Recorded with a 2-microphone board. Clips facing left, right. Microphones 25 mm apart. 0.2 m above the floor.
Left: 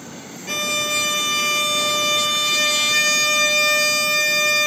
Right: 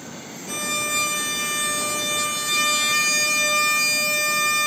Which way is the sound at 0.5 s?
40° left (ahead or behind).